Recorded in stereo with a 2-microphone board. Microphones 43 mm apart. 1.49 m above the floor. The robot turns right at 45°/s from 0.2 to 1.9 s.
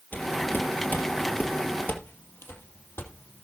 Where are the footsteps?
50° left (ahead or behind), 2.5 m; by 3.4 s 70° left (ahead or behind), 4.5 m.